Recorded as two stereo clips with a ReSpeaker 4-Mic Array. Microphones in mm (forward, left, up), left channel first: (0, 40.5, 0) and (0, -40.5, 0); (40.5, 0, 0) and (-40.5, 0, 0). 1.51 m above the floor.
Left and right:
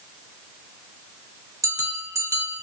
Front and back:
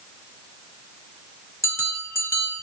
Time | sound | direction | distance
1.6 | a bell | 50° right | 2.0 m